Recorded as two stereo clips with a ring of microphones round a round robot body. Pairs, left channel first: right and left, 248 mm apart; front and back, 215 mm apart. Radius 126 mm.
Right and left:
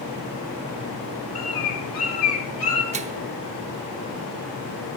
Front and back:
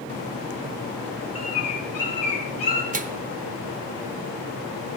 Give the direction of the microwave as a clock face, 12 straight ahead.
7 o'clock.